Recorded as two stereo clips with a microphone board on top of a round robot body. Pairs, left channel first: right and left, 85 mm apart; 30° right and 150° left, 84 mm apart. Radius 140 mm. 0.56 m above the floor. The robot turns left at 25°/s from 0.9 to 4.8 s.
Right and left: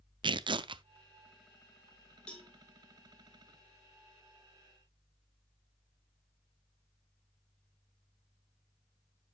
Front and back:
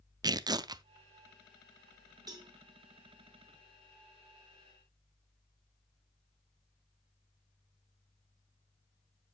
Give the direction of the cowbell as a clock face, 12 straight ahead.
6 o'clock.